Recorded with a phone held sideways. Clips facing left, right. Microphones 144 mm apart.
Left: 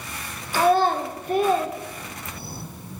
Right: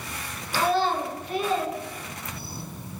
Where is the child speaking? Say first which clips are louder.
Left 5 dB; 45° left (ahead or behind), 0.6 m.